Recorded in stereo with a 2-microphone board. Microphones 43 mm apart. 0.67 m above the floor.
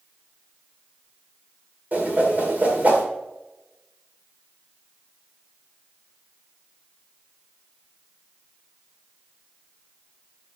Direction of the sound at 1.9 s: 40° right (ahead or behind).